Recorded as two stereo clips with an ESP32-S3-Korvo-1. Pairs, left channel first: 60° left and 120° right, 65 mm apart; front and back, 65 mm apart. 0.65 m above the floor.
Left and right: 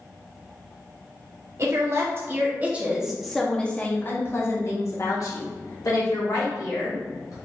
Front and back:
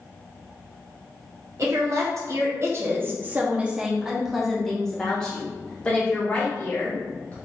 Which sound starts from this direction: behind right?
A woman speaking, at 1.6 s.